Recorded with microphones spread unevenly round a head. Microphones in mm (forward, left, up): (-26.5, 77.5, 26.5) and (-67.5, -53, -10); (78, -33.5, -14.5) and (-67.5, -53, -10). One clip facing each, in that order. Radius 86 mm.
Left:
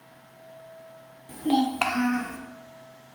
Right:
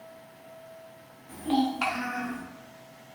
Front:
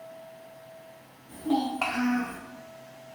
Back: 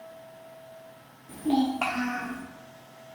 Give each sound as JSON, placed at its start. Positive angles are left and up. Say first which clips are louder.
{"t": 1.3, "sound": "a child speaking", "louder": "left 2 dB, back 2 dB", "azimuth_deg": 125, "distance_m": 0.8}